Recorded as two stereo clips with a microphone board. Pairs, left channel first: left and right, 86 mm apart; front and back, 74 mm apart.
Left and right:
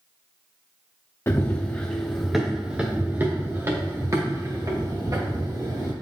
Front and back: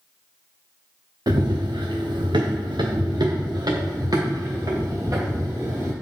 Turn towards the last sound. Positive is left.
turn(degrees=-130)